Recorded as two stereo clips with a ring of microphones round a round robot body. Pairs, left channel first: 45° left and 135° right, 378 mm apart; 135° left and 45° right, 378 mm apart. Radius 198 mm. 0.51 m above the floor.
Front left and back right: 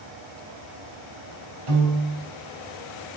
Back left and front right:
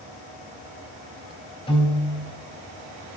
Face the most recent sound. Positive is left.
turn(degrees=-150)